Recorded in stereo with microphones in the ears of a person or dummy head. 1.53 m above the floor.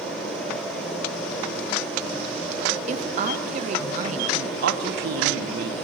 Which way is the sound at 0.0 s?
5° left (ahead or behind).